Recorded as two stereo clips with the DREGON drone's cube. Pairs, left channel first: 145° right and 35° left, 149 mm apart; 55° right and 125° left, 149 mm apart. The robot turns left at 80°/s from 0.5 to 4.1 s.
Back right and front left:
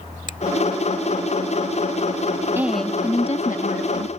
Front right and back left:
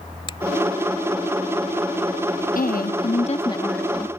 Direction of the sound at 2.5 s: 40° right.